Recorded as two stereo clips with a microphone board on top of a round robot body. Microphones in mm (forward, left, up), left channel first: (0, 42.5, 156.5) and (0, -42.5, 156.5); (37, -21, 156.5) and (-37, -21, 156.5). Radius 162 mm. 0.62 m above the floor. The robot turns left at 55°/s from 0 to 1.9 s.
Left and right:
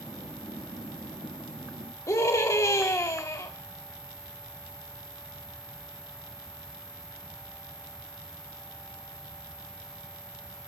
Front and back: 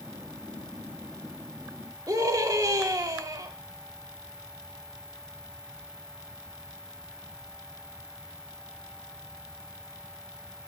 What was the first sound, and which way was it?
A scream, 145° left.